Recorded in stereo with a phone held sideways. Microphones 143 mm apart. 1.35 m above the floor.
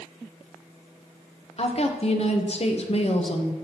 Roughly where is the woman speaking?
Left.